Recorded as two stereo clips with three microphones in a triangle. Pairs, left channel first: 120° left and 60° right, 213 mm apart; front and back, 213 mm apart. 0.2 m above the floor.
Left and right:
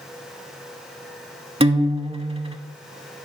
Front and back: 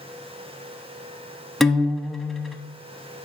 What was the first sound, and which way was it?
A guitar, 90° right.